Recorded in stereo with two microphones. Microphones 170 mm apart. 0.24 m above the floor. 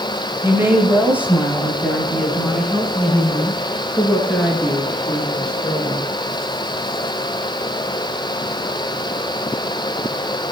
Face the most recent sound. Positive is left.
turn(degrees=5)  # may be behind; listen again after turning